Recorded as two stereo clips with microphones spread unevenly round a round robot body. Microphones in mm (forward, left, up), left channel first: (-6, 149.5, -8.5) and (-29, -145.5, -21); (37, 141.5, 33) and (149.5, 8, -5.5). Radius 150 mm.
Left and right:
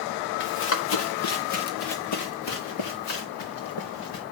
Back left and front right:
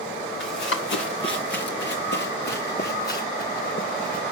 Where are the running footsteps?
135° left, 3 m; by 4.2 s 95° left, 3.5 m.